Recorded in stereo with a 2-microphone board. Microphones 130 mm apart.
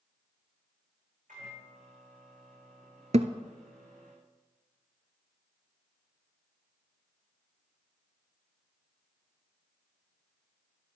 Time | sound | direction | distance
1.3 | a microwave | 85° right | 6.5 m
3.1 | a thud | 60° right (ahead or behind) | 0.8 m